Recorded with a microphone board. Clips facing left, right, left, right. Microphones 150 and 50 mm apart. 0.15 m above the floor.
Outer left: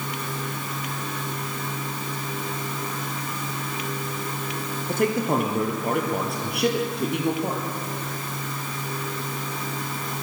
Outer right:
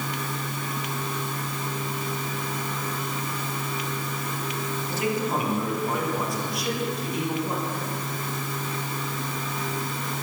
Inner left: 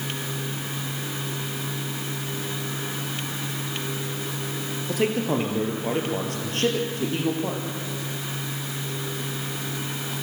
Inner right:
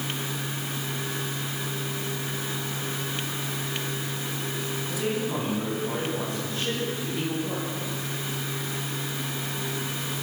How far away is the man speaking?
About 3.5 m.